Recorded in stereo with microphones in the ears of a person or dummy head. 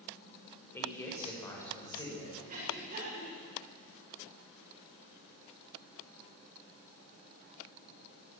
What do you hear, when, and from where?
0.7 s a man speaking: 15° left (ahead or behind), 5 m; by 2.4 s 25° left (ahead or behind), 7 m
2.5 s breathing: 35° right (ahead or behind), 8 m